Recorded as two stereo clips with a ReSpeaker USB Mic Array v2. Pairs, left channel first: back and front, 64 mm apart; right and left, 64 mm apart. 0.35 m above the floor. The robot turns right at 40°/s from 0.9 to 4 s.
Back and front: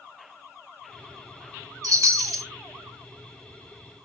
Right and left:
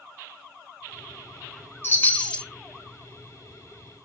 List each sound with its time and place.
1.8 s a chime: 35° right, 0.6 m; by 2.5 s 10° right, 0.6 m